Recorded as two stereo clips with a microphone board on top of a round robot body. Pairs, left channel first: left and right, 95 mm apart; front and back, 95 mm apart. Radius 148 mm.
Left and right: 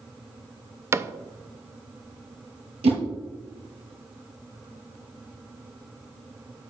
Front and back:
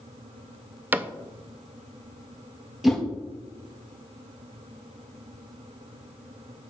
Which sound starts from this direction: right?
A whoosh, at 2.8 s.